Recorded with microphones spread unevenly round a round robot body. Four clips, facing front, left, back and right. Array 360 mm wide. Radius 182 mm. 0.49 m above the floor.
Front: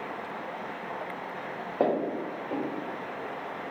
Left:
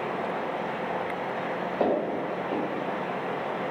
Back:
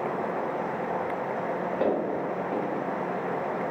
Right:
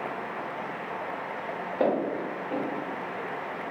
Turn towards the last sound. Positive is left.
turn(degrees=-10)